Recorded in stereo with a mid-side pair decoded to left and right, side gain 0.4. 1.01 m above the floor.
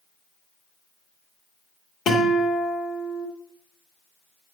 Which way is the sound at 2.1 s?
65° left.